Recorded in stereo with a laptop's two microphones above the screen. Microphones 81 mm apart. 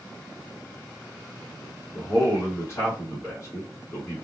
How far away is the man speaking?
About 1.2 m.